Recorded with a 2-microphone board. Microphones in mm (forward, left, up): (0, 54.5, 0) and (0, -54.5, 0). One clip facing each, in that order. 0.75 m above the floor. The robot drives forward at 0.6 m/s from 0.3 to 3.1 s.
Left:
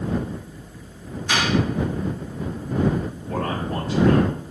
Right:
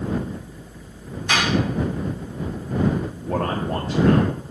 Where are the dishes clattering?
65° right (ahead or behind), 4 m.